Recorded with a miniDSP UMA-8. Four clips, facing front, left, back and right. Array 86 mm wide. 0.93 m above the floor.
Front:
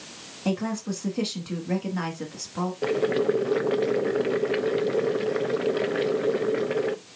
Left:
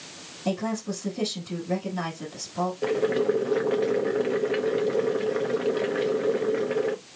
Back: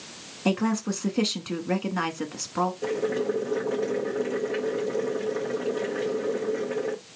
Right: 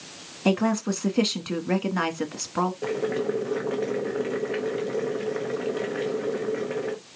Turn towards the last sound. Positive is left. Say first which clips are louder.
# left 3 dB, front 3 dB
turn(degrees=15)